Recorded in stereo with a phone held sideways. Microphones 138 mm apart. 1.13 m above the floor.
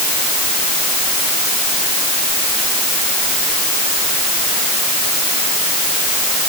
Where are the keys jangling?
I don't hear keys jangling.